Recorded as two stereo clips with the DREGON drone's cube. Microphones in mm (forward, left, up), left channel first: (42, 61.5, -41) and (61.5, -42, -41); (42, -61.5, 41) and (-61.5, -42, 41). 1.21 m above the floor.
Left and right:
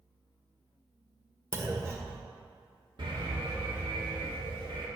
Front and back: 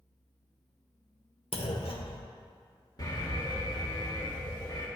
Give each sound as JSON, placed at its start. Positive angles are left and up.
{"t": 1.5, "sound": "a clunk", "azimuth_deg": -20, "distance_m": 1.4}
{"t": 3.0, "sound": "an alarm", "azimuth_deg": -55, "distance_m": 2.5}